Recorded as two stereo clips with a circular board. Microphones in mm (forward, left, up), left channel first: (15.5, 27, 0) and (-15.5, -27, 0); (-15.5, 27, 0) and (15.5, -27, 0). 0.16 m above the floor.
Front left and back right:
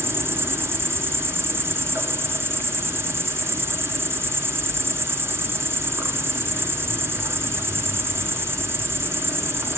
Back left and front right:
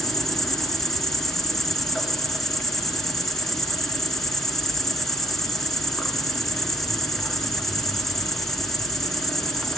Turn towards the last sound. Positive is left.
turn(degrees=-155)